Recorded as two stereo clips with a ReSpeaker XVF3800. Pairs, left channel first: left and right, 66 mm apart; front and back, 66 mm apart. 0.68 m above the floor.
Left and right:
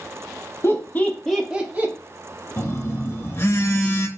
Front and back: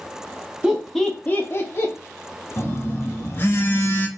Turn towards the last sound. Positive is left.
turn(degrees=50)